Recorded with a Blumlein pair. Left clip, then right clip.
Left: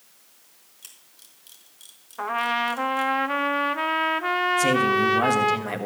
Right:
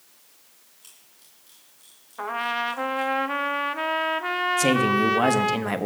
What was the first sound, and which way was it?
A camera shutter, 25° left.